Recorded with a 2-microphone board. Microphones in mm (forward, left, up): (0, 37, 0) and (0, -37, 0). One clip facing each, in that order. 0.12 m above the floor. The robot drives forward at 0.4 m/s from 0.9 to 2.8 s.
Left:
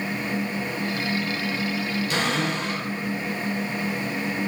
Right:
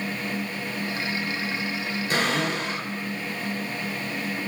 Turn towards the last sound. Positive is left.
turn(degrees=-35)  # may be behind; listen again after turning